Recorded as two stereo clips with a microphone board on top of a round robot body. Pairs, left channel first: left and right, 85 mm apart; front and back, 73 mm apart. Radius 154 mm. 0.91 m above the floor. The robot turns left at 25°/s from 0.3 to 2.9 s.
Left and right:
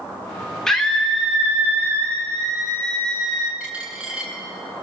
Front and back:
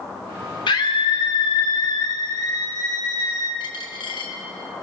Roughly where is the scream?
Ahead.